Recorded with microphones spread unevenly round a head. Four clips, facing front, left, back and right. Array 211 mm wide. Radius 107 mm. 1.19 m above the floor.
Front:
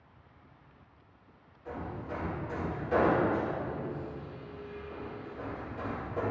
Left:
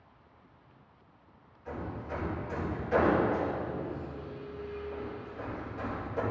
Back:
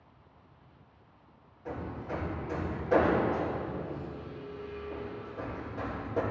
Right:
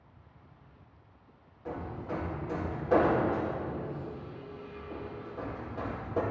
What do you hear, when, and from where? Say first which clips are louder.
1.6 s hammering: right 1 dB, back 1 dB; 115° right, 1.9 m